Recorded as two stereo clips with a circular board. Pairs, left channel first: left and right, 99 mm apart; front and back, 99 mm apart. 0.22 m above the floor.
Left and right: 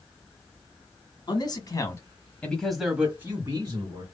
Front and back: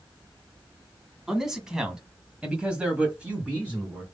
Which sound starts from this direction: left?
A man speaking, at 1.3 s.